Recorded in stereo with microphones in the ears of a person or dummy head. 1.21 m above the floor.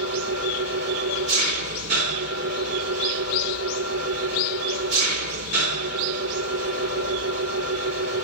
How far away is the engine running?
About 2 m.